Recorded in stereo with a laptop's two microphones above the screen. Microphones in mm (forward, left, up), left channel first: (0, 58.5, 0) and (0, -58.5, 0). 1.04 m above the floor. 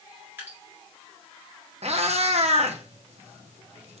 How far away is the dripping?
About 1.8 m.